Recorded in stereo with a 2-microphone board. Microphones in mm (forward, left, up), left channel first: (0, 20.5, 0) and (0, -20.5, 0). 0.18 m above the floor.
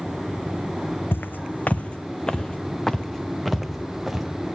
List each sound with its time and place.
1.1 s footsteps: 60° left (ahead or behind), 0.6 m; by 4.3 s 5° right (ahead or behind), 1.9 m